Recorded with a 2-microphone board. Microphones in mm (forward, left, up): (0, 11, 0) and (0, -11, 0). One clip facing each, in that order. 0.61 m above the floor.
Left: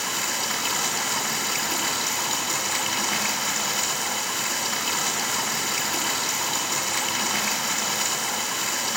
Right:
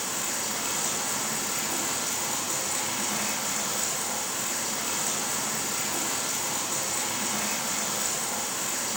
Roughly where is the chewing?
I don't hear chewing.